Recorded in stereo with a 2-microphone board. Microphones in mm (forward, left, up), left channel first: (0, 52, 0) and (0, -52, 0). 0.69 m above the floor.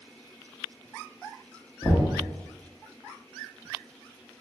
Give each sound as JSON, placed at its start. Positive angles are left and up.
{"t": 1.8, "sound": "knocking", "side_deg": 40, "distance_m": 1.0}